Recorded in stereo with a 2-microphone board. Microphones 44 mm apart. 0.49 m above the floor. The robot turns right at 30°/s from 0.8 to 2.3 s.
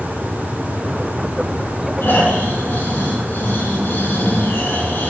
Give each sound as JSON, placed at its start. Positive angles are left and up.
{"t": 2.0, "sound": "snoring", "side_deg": 65, "distance_m": 4.0}